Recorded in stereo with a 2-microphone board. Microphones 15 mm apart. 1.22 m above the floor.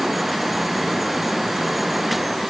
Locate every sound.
Only background noise.